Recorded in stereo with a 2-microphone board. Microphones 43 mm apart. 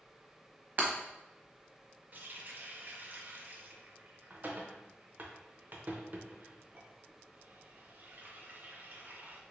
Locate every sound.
0.8 s breaking glass: 45° right (ahead or behind), 0.8 m
2.1 s a running tap: 45° right (ahead or behind), 0.6 m